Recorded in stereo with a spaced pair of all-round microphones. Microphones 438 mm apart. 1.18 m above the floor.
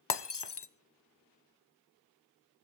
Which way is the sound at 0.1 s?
70° left (ahead or behind).